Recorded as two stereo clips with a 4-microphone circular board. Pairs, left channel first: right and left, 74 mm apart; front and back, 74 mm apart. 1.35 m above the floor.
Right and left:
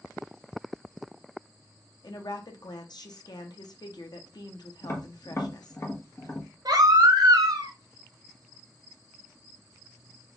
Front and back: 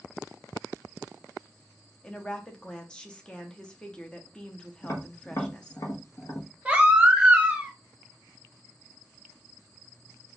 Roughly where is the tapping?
Ahead right.